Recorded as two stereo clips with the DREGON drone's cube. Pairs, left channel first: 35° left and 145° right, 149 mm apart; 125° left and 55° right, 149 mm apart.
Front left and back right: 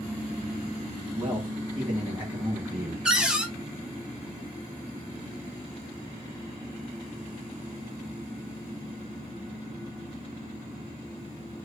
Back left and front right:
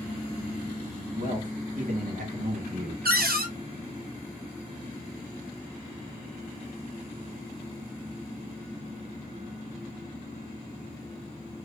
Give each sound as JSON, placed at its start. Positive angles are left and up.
{"t": 1.1, "sound": "a man speaking", "azimuth_deg": -70, "distance_m": 1.7}
{"t": 3.0, "sound": "a cupboard door", "azimuth_deg": -60, "distance_m": 0.7}